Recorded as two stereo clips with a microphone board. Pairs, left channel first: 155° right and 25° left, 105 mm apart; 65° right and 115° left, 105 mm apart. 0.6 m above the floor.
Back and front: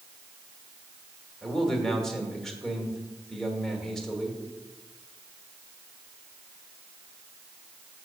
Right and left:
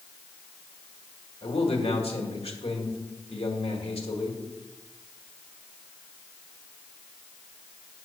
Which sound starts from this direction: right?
A man speaking, at 1.4 s.